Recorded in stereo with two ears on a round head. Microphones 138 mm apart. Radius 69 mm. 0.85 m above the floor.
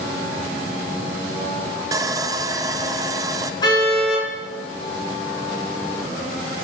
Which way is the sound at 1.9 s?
20° right (ahead or behind).